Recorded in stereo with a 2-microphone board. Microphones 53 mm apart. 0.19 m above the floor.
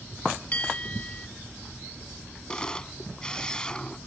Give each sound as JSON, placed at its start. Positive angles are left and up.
{"t": 0.5, "sound": "a bell", "side_deg": 25}
{"t": 2.5, "sound": "a camera shutter", "side_deg": 15}